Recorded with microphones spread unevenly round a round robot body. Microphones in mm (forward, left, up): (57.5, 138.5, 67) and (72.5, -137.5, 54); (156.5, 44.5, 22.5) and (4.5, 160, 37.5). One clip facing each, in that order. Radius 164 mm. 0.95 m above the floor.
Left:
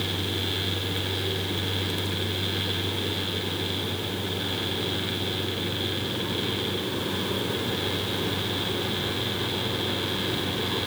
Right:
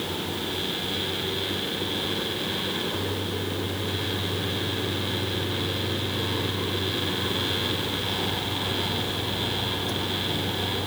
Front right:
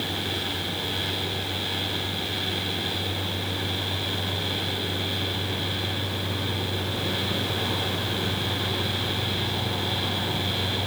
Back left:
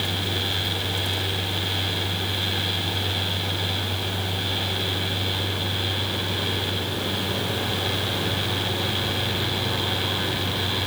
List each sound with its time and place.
Only background noise.